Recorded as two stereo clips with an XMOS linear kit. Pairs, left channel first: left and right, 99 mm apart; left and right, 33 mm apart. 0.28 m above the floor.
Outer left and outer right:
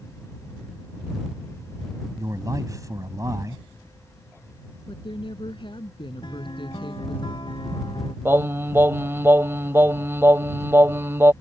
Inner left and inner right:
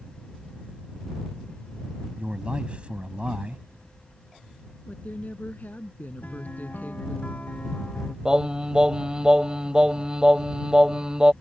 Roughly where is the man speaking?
Right.